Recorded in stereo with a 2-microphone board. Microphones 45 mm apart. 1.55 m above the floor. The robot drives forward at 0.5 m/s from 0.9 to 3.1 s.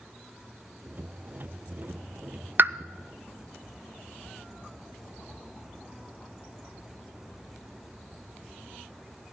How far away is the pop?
About 0.5 m.